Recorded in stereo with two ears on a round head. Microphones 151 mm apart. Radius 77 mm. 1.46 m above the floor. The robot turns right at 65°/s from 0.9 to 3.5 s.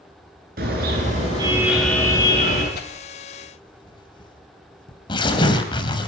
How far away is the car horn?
About 9 m.